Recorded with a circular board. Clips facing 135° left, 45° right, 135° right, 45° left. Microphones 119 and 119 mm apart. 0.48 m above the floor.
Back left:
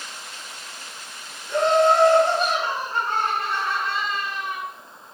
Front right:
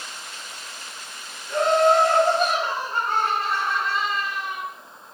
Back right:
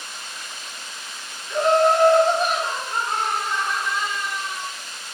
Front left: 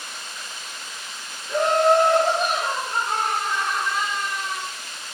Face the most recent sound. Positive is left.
turn(degrees=45)